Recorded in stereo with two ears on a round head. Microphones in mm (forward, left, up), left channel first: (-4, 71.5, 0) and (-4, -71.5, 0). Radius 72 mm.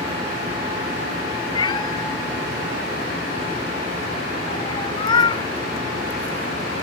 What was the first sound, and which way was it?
A cat meowing, 30° left (ahead or behind).